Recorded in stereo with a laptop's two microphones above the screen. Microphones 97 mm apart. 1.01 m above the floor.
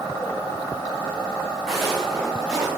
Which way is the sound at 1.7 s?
5° left (ahead or behind).